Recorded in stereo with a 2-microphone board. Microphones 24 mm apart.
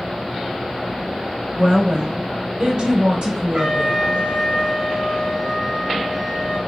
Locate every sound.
1.6 s a woman speaking: 35° right (ahead or behind), 3.5 m
3.5 s a trumpet: 40° right (ahead or behind), 3.5 m